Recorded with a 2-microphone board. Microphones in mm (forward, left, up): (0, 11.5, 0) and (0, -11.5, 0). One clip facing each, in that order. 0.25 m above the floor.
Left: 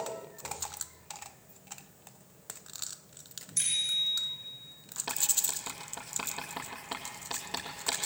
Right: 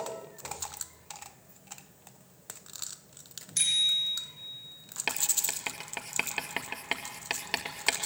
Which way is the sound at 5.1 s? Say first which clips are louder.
Right 1 dB; 80° right.